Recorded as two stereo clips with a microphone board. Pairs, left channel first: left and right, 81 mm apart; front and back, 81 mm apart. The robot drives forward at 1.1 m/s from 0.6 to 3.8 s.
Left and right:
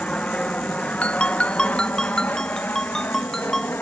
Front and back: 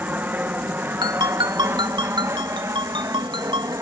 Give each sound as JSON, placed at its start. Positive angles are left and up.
{"t": 0.0, "sound": "an aircraft", "azimuth_deg": 150}
{"t": 1.0, "sound": "a ringtone", "azimuth_deg": 160}